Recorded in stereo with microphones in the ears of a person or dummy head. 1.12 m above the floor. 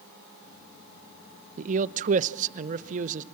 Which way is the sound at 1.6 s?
45° right (ahead or behind).